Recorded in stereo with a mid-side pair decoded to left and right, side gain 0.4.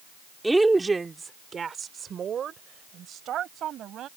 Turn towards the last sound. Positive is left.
turn(degrees=-75)